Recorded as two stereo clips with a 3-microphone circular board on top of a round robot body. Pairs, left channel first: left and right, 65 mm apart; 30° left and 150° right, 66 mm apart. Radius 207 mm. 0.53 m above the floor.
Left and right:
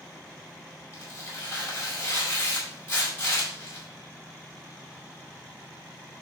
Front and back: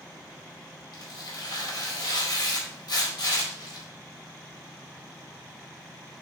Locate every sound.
0.9 s tearing paper: 40° left, 4.5 m